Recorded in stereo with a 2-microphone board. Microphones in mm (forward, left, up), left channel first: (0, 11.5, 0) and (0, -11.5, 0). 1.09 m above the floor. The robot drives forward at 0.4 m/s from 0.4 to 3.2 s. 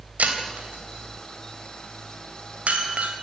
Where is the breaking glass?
85° right, 3.5 m; by 3.1 s 70° right (ahead or behind), 3.5 m.